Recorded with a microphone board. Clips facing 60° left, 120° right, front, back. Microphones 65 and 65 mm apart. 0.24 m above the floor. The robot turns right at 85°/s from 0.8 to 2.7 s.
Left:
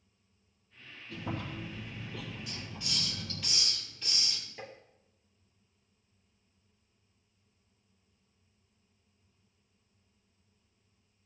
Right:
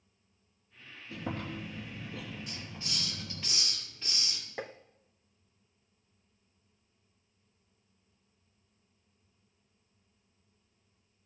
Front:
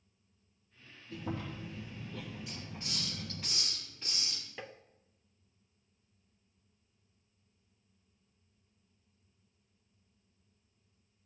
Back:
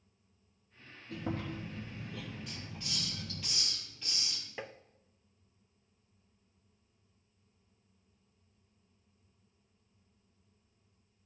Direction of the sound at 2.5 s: 85° right.